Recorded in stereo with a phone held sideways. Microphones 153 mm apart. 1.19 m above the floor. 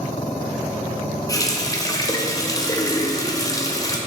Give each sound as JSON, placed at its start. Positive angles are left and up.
{"t": 1.3, "sound": "a running tap", "side_deg": 25, "distance_m": 0.8}